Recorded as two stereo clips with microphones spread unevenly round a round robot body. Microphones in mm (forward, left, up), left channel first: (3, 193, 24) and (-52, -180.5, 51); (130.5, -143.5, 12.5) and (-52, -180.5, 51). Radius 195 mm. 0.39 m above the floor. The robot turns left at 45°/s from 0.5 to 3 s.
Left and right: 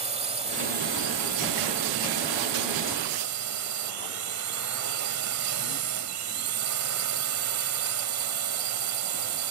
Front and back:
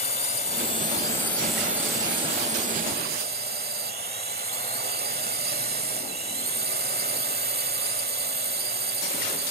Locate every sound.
0.0 s a drone: 25° right; by 9.5 s 135° right